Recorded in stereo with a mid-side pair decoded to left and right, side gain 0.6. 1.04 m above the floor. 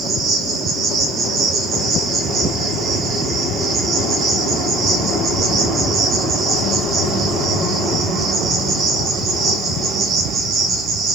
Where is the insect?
50° right, 0.8 m.